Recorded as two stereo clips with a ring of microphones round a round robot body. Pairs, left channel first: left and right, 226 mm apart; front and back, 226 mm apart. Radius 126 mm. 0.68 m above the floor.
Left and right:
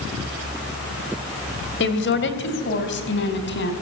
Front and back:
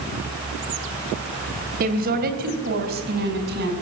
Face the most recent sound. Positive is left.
turn(degrees=130)